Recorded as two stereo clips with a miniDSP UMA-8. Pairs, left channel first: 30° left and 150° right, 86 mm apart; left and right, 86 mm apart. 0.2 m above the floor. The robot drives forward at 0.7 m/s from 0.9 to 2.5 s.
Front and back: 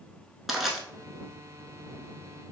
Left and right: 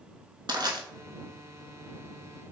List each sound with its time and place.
0.5 s crushing: 65° right, 0.8 m